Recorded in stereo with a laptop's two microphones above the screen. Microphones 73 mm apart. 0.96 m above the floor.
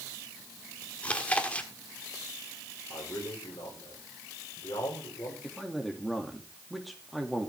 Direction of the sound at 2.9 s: 55° left (ahead or behind).